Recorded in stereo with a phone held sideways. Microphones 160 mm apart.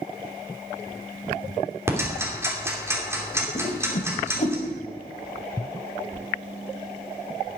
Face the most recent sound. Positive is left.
turn(degrees=45)  # may be behind; listen again after turning